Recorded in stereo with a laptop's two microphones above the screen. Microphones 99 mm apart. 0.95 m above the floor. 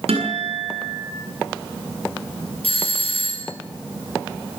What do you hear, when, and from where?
0.1 s a guitar: 80° right, 8.5 m
2.6 s a doorbell: 70° left (ahead or behind), 6 m